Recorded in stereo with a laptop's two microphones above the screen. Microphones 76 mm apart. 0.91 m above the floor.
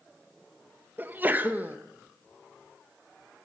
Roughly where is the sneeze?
Right.